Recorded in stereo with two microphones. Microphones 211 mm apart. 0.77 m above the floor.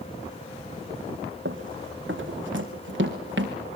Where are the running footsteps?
60° right (ahead or behind), 2.5 m; by 3.5 s 55° right (ahead or behind), 4 m.